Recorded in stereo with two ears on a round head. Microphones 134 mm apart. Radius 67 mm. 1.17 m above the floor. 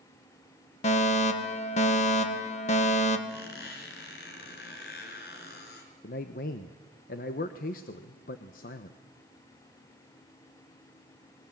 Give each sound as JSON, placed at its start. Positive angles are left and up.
{"t": 0.8, "sound": "a fire alarm", "side_deg": 45, "distance_m": 1.9}
{"t": 3.3, "sound": "a squeak", "side_deg": 75, "distance_m": 4.5}
{"t": 6.0, "sound": "a man speaking", "side_deg": 60, "distance_m": 1.0}